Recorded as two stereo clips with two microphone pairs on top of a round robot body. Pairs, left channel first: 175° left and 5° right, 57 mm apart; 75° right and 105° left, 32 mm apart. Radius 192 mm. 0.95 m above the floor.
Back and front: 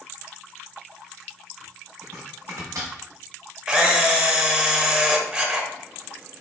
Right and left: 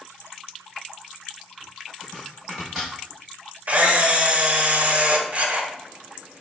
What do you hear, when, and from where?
2.0 s chopping: 15° left, 0.6 m
3.7 s a camera shutter: 75° left, 1.0 m